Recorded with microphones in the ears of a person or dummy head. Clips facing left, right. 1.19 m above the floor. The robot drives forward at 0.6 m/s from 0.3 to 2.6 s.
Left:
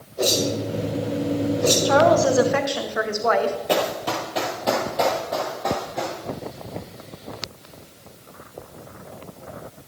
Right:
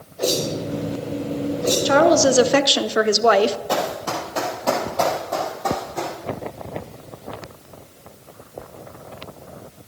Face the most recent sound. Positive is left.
turn(degrees=0)  # may be behind; listen again after turning